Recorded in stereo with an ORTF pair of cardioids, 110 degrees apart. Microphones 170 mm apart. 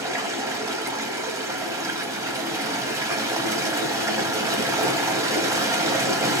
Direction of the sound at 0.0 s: 20° right.